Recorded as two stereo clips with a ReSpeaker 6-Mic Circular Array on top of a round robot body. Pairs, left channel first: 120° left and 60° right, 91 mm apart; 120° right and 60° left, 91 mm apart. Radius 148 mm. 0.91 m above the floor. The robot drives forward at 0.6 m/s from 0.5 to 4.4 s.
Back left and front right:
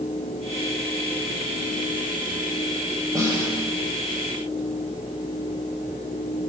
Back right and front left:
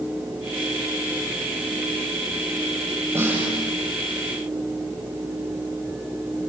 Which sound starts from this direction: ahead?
A snare drum, at 3.1 s.